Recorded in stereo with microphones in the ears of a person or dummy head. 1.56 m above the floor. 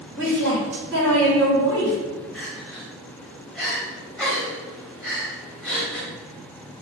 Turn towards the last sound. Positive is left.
turn(degrees=0)  # may be behind; listen again after turning